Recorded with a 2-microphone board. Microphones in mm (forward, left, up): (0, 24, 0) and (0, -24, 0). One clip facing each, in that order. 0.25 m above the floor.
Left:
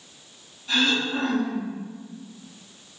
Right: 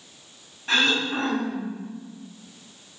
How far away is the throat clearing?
About 1.1 m.